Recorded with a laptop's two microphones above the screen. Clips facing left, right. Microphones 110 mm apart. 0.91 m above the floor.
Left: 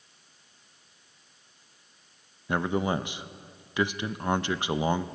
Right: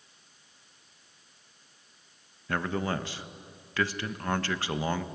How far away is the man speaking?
About 0.5 m.